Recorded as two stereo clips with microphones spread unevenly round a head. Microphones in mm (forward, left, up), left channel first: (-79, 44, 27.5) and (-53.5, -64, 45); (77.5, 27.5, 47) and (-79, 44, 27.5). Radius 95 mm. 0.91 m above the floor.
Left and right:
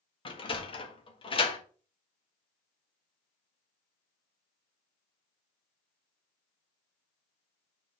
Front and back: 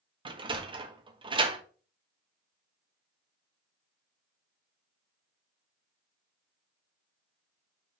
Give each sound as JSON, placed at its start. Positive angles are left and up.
{"t": 0.2, "sound": "a sliding door", "azimuth_deg": 125, "distance_m": 1.6}